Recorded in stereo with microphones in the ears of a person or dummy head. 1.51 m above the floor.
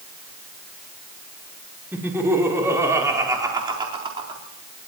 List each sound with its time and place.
1.9 s laughter: 10° right (ahead or behind), 4.5 m; by 4.4 s 30° right (ahead or behind), 3.5 m